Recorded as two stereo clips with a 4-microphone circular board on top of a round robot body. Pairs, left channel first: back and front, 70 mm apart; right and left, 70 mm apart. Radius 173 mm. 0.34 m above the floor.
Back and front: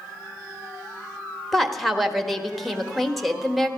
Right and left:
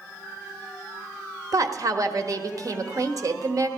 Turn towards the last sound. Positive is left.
turn(degrees=90)